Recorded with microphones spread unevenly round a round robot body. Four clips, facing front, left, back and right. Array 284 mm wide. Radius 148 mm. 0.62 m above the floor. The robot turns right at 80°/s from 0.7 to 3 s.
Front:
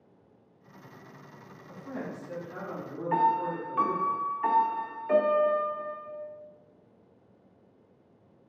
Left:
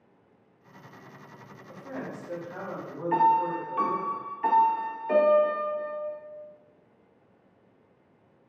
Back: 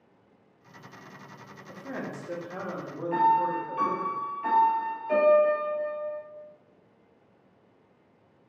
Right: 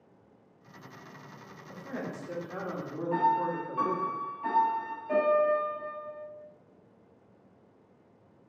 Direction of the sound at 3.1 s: 65° left.